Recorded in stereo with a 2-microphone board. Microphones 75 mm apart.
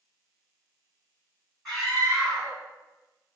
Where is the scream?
5° left (ahead or behind), 1.7 m.